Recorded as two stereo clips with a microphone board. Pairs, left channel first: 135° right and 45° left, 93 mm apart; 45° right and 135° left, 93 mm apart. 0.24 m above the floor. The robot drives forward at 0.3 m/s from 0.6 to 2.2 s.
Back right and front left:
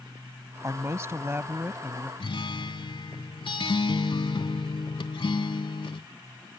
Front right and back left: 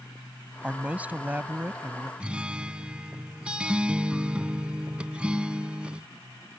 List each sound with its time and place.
0.6 s a man speaking: 65° left; by 2.1 s 105° left
2.2 s a guitar: 150° right